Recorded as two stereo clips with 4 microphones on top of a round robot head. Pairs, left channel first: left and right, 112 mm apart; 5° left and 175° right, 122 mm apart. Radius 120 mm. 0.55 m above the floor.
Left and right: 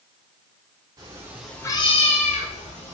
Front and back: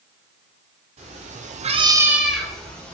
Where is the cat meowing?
145° right, 0.8 m; by 2.9 s 80° left, 1.4 m.